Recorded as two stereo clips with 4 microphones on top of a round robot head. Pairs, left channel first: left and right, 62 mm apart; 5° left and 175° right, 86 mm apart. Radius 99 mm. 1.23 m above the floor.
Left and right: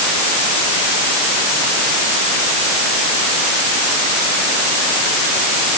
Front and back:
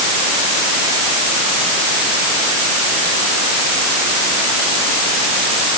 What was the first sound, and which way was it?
Only background noise.